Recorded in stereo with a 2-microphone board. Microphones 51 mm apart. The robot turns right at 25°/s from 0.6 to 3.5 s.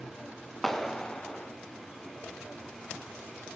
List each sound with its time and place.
0.6 s a clap: 5° left (ahead or behind), 1.5 m; by 1.5 s 20° left (ahead or behind), 1.5 m